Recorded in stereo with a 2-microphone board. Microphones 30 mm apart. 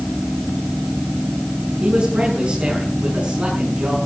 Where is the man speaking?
45° right (ahead or behind), 7 m.